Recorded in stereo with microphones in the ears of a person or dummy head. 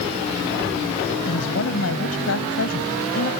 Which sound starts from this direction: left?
A woman speaking, at 1.2 s.